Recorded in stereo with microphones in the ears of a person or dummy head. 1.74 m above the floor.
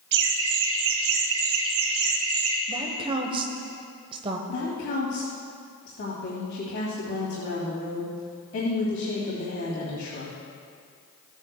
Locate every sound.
0.1 s laughter: 65° right (ahead or behind), 1.8 m; by 2.6 s 85° right, 3 m
2.7 s a woman speaking: 25° right (ahead or behind), 1.1 m
4.5 s a woman speaking: 50° left (ahead or behind), 2.5 m